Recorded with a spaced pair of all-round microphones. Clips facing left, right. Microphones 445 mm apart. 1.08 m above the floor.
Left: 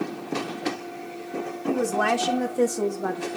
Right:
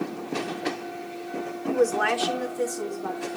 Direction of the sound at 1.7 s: 50° left (ahead or behind).